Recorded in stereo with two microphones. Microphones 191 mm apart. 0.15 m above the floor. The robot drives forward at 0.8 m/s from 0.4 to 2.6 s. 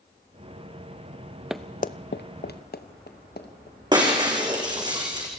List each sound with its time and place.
1.5 s running footsteps: 5° right (ahead or behind), 0.8 m; by 4.9 s 65° left (ahead or behind), 5 m
3.9 s breaking glass: 25° right (ahead or behind), 5 m